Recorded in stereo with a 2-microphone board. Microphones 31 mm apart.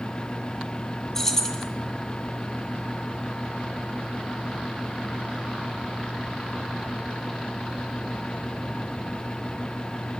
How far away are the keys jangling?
About 1.4 m.